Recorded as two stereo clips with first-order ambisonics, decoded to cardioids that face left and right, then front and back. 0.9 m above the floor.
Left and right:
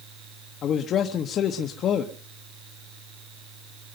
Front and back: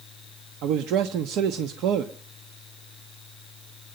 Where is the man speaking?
145° left, 1.0 m.